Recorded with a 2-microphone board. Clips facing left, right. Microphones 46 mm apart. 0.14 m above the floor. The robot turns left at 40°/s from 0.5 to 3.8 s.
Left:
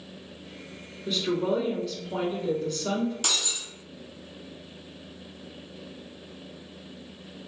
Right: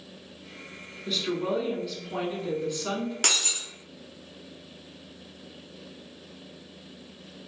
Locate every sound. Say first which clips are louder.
1.1 s a woman speaking: left 2 dB; 5° left (ahead or behind), 1.1 m; by 3.1 s 25° right (ahead or behind), 1.1 m
3.2 s breaking glass: right 2 dB; 65° right (ahead or behind), 0.5 m; by 3.6 s 50° right (ahead or behind), 0.5 m